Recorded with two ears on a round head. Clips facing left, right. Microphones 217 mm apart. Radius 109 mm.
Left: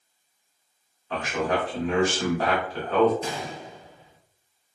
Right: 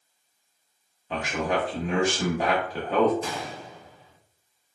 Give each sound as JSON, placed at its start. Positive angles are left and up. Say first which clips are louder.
{"t": 1.1, "sound": "a man speaking", "louder": "left 1 dB", "side_deg": -15, "distance_m": 0.7}
{"t": 3.2, "sound": "a gunshot", "louder": "left 1 dB", "side_deg": 20, "distance_m": 0.6}